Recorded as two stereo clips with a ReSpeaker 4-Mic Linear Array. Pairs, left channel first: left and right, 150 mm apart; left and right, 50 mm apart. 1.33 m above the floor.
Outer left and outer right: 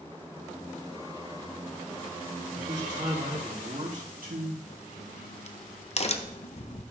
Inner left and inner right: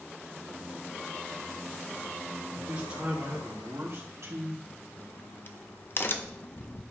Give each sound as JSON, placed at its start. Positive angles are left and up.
{"t": 2.6, "sound": "a man speaking", "side_deg": -20, "distance_m": 3.5}
{"t": 4.7, "sound": "a crack", "side_deg": 45, "distance_m": 0.6}